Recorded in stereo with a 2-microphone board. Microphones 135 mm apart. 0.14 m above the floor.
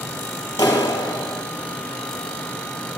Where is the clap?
30° left (ahead or behind), 2.5 m.